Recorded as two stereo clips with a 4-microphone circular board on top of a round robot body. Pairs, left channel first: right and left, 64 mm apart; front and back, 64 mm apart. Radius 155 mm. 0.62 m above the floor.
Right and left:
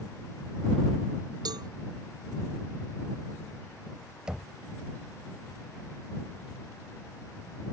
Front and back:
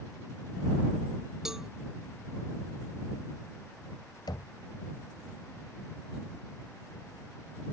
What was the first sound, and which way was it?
A cowbell, 100° left.